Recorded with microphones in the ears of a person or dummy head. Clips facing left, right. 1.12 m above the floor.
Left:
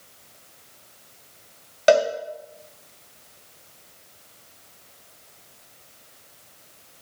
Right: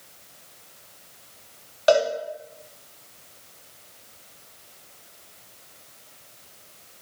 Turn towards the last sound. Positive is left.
turn(degrees=25)  # may be behind; listen again after turning